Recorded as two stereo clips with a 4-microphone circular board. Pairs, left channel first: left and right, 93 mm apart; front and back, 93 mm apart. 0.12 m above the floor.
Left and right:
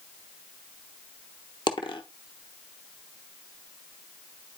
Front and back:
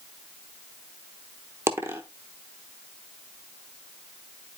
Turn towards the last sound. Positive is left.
turn(degrees=120)